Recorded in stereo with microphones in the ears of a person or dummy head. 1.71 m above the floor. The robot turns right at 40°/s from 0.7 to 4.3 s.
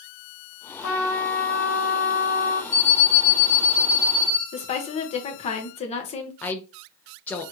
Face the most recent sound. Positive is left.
turn(degrees=10)  # may be behind; listen again after turning